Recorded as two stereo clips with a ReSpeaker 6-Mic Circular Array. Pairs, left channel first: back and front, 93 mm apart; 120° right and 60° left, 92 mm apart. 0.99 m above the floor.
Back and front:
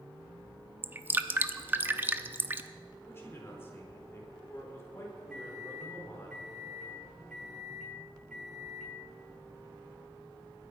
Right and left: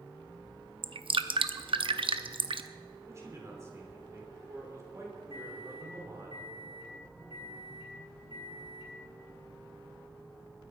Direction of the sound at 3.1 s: 115° left.